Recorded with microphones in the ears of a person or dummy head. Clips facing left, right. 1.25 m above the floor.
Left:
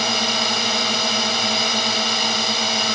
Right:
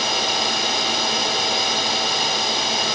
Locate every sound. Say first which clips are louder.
0.0 s a drone: left 1 dB; 65° left (ahead or behind)